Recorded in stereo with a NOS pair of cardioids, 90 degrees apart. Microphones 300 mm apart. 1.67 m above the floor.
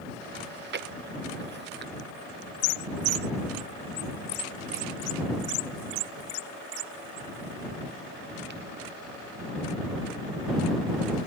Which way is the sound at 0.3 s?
35° right.